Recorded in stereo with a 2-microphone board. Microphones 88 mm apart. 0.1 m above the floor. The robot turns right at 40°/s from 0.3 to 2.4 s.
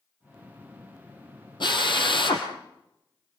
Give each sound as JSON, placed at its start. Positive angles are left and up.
{"t": 1.6, "sound": "a drill", "azimuth_deg": 70, "distance_m": 3.5}